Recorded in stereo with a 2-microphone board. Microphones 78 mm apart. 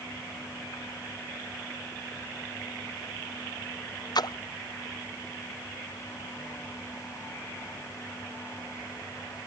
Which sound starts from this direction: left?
A splash, at 4.2 s.